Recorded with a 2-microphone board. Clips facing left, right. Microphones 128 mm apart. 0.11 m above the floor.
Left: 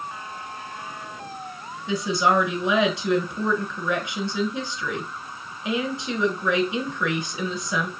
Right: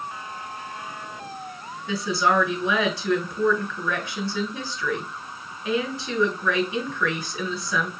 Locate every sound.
1.9 s a woman speaking: 20° left (ahead or behind), 1.2 m